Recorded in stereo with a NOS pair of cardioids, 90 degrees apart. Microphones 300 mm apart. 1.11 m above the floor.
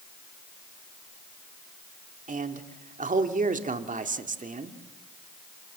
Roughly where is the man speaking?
Ahead right.